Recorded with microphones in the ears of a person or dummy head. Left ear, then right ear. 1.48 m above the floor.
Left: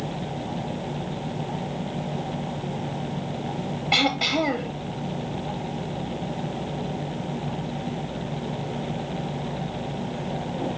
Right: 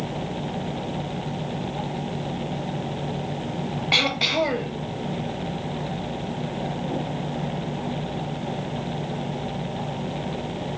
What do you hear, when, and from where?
3.9 s throat clearing: 5° right (ahead or behind), 0.8 m